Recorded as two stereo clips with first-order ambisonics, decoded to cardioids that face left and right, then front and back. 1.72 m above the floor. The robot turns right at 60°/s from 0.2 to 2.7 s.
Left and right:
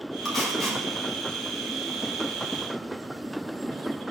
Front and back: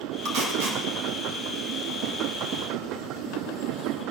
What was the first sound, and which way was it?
Tape being pulled, 150° left.